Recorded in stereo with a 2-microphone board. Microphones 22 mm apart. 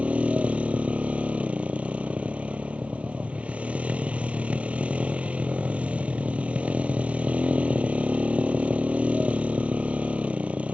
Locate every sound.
0.0 s a motorcycle: 70° right (ahead or behind)